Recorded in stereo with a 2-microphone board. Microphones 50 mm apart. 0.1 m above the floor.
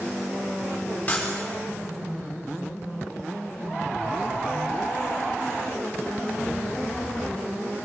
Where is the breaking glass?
25° left (ahead or behind), 6 m.